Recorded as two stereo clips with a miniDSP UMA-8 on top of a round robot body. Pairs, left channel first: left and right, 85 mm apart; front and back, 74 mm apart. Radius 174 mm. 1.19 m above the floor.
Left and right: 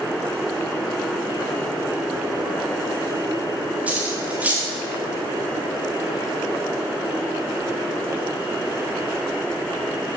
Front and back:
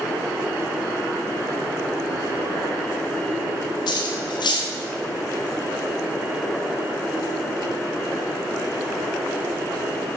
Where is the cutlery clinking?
15° right, 0.9 m.